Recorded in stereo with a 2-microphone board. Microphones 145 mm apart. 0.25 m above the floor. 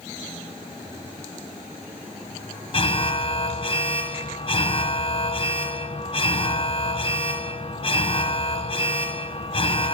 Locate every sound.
2.7 s an alarm: 40° left (ahead or behind), 1.3 m